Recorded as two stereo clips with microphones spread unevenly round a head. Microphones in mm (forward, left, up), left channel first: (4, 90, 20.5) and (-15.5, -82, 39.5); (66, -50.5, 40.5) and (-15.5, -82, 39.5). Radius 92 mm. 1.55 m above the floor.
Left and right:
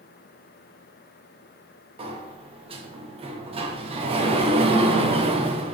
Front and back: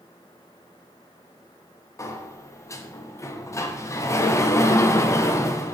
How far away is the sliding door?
About 1.0 m.